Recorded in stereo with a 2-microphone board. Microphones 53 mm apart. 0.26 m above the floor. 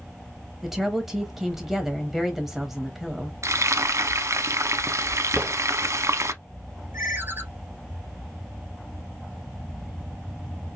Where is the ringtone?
40° right (ahead or behind), 2.5 m.